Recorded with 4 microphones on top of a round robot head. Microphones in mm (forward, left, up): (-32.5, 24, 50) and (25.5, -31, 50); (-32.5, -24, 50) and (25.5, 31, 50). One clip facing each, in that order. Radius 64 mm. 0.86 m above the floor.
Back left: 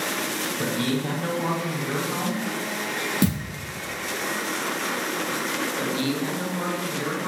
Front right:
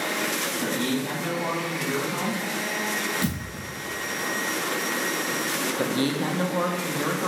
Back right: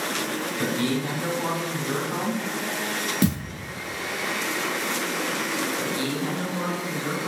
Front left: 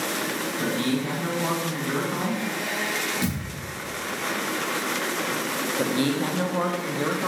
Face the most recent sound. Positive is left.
turn(degrees=5)